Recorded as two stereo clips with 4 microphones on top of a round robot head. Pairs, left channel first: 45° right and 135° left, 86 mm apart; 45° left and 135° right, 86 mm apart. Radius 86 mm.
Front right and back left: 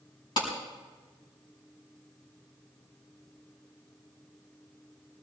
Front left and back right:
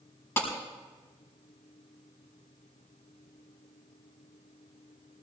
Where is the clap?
15° right, 5 m.